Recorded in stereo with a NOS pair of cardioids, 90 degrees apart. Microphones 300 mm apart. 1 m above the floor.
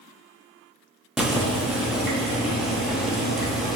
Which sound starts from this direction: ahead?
Boiling, at 1.2 s.